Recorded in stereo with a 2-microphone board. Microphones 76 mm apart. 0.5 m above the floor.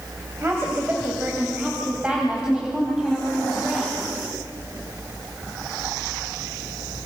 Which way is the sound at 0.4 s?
35° right (ahead or behind).